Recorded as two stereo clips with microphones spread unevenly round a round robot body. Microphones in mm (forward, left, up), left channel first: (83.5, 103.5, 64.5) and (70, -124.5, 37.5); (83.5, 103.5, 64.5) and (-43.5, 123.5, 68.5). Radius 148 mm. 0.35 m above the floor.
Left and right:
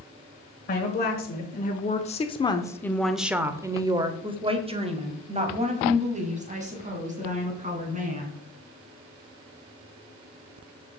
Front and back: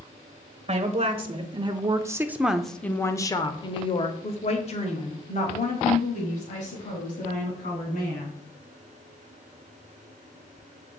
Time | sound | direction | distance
0.7 | a woman speaking | 135° left | 1.4 m